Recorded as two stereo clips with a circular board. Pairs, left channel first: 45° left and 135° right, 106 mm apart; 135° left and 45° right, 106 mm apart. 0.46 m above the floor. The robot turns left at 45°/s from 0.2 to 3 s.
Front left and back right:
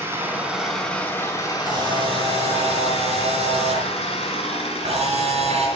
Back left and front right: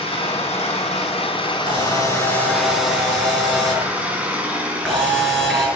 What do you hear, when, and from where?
0.0 s an engine running: 160° left, 4 m; by 5.8 s 35° left, 4 m
1.6 s a camera shutter: 75° right, 5.5 m; by 5.7 s 140° right, 5.5 m